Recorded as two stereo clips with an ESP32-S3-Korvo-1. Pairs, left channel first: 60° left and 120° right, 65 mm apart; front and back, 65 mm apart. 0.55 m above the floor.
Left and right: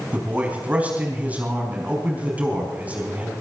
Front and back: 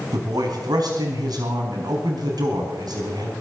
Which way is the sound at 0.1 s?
170° left.